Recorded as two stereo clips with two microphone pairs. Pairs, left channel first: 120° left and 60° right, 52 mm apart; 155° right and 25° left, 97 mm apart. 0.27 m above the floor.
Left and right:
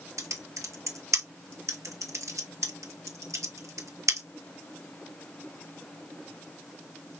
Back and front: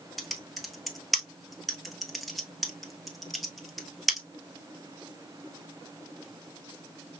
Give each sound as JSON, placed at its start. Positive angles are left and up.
{"t": 0.2, "sound": "typing on a keyboard", "azimuth_deg": -65, "distance_m": 1.0}